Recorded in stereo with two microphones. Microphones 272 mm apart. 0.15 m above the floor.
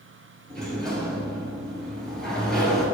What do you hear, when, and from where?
0.5 s a sliding door: 5° left (ahead or behind), 1.8 m